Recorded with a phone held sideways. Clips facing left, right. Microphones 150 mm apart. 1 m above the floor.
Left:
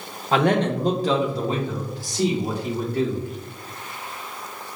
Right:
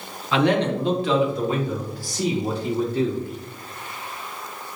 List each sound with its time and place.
0.3 s a man speaking: 45° left (ahead or behind), 0.8 m; by 3.2 s 15° left (ahead or behind), 2.5 m